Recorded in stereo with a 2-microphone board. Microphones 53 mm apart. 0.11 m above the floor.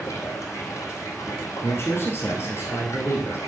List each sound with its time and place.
0.0 s running water: 70° left (ahead or behind), 1.9 m
1.6 s a man speaking: 50° left (ahead or behind), 2 m